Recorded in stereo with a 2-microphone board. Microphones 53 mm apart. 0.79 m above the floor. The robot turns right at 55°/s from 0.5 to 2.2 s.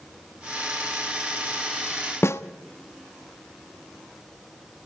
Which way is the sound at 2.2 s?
55° left (ahead or behind).